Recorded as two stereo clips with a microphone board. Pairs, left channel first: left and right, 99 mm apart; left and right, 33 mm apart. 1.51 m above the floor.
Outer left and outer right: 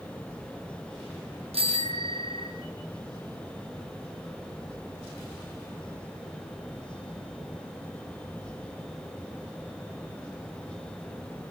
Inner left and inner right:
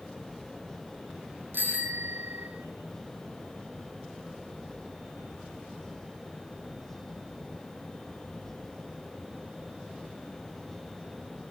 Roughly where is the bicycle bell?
Right.